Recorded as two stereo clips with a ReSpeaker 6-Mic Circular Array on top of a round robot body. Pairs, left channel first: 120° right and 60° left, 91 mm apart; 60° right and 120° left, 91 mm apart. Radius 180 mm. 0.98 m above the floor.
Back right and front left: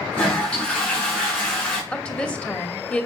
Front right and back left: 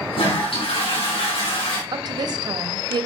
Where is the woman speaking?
165° left, 2 m.